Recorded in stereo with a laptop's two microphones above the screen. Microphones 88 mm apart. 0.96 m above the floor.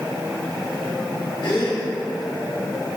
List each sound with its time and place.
1.4 s a gasp: 65° left (ahead or behind), 1.8 m